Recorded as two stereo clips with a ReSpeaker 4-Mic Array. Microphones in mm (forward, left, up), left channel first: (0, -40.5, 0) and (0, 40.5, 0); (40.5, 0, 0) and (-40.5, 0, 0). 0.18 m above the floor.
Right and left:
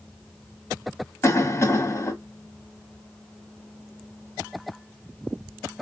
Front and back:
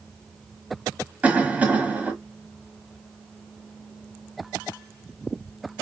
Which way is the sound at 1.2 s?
115° right.